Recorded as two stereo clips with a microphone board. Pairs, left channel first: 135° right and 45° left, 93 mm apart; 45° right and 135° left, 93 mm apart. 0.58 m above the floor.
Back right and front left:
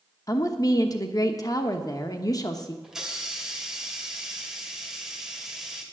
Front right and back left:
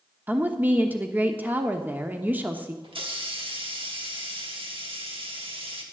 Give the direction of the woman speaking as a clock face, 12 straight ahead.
5 o'clock.